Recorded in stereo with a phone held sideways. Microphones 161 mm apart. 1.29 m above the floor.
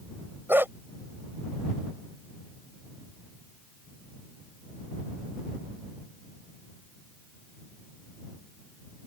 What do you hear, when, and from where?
0.5 s a dog barking: 15° right (ahead or behind)